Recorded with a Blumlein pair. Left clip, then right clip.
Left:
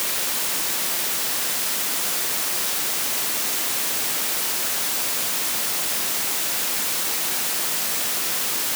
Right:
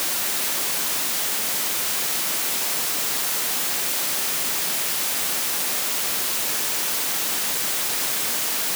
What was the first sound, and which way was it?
Only background noise.